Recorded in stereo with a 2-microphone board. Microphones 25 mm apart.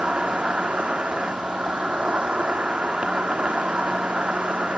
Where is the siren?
I don't hear a siren.